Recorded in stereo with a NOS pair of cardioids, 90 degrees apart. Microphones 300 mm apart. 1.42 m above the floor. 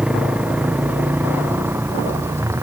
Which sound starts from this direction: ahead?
A motorcycle, at 0.0 s.